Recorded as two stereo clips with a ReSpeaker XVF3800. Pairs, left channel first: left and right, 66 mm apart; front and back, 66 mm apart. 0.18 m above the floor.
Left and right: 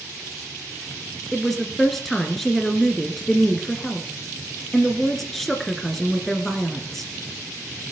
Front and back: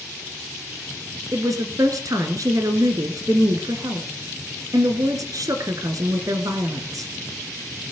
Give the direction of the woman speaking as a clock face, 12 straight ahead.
6 o'clock.